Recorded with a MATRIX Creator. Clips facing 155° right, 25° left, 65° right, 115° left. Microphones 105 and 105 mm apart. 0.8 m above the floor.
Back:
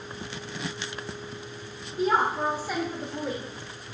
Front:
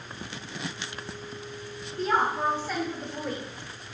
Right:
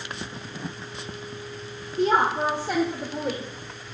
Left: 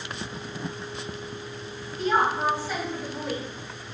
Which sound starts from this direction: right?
A woman speaking, at 2.0 s.